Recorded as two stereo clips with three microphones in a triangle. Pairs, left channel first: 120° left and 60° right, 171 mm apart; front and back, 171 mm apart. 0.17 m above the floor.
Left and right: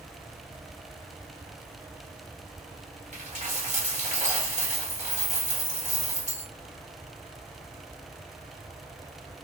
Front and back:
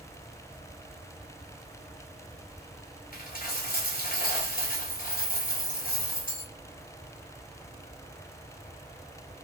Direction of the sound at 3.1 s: 25° right.